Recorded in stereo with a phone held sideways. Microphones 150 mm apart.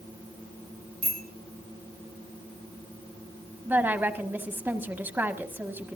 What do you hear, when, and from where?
1.0 s a bicycle bell: 80° right, 3.5 m
3.6 s a woman speaking: 15° right (ahead or behind), 1.8 m